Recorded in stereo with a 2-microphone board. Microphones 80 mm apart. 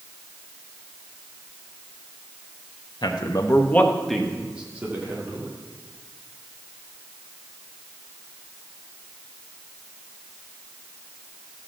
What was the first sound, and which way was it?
A man speaking, 65° left (ahead or behind).